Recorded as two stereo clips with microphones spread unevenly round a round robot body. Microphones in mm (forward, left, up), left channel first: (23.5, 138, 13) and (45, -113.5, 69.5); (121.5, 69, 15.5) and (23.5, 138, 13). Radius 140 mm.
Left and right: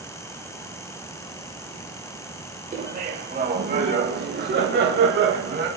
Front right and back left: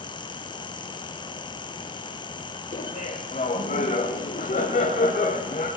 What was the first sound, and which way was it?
Laughter, 20° right.